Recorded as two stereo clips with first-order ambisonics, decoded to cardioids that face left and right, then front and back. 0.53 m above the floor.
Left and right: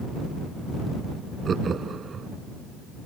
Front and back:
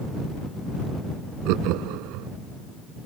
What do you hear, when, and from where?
1.4 s laughter: 160° right